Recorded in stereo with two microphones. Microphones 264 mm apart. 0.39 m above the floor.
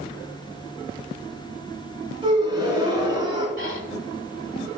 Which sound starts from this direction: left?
Breathing, at 3.6 s.